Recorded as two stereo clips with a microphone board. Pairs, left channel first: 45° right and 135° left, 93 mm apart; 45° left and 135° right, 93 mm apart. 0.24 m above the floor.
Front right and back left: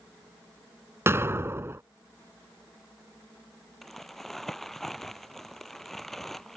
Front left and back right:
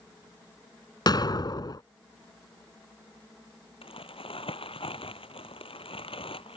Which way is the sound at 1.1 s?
80° left.